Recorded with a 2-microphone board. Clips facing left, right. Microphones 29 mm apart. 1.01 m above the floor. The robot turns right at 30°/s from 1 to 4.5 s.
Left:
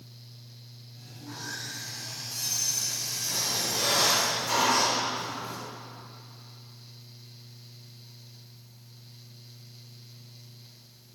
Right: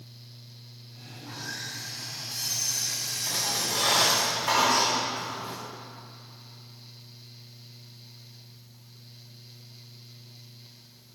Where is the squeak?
95° right, 2 m; by 5.6 s 55° right, 2 m.